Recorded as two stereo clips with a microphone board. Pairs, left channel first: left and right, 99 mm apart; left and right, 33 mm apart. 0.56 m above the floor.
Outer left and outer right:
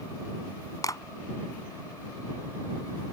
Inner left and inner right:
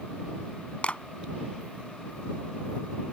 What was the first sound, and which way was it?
A clap, 35° left (ahead or behind).